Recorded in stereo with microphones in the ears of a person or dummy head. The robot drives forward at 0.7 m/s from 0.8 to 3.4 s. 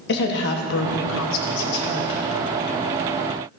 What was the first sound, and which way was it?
A woman speaking, 60° left (ahead or behind).